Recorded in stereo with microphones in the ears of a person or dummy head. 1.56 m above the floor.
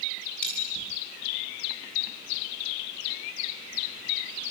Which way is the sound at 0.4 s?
5° left (ahead or behind).